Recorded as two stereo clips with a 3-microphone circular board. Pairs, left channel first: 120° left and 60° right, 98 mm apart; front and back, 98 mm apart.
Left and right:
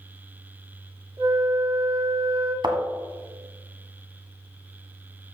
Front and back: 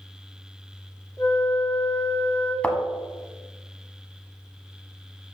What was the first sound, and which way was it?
A flute, 50° right.